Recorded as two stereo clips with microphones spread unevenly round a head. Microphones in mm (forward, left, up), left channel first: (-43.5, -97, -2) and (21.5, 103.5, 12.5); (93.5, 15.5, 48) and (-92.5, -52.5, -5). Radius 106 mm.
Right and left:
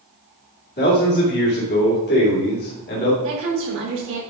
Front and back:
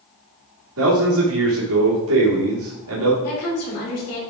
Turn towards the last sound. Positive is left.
turn(degrees=40)